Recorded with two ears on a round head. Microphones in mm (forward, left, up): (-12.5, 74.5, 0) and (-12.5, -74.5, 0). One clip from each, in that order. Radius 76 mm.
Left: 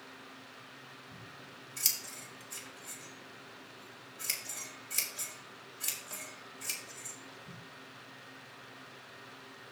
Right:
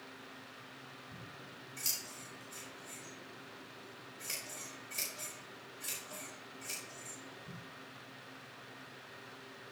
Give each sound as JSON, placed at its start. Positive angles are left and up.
{"t": 1.1, "sound": "scissors", "side_deg": 60, "distance_m": 3.0}